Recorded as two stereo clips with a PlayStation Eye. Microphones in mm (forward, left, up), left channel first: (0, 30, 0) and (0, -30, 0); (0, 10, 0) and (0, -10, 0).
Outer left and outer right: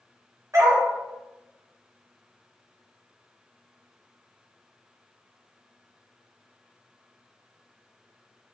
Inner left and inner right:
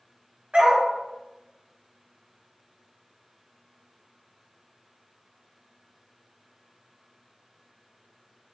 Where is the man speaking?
No man speaking in this recording.